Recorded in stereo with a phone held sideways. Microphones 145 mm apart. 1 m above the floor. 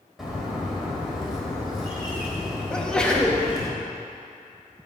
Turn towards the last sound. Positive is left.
turn(degrees=5)  # may be behind; listen again after turning